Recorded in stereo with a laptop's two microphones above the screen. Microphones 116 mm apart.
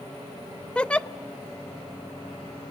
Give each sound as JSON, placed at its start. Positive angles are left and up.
{"t": 0.8, "sound": "a giggle", "side_deg": 10, "distance_m": 0.5}